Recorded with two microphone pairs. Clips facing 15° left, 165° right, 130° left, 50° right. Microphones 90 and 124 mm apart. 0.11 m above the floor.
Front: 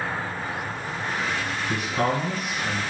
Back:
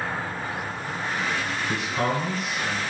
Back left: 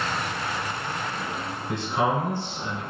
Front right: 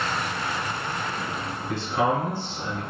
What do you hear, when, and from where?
1.7 s a man speaking: 170° left, 1.5 m